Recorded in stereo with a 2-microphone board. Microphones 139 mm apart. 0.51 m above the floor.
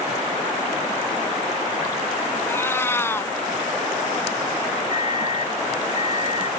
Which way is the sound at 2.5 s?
20° left (ahead or behind).